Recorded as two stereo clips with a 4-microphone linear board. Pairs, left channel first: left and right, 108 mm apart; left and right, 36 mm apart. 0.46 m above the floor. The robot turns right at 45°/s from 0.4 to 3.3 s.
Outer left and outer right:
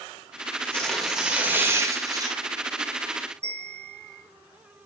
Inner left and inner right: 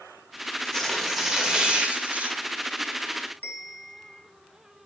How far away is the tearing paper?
About 1.9 m.